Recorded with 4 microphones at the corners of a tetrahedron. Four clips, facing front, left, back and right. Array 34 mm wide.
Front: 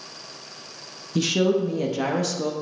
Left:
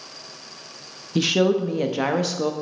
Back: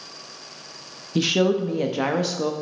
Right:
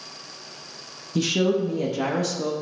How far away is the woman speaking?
About 0.8 m.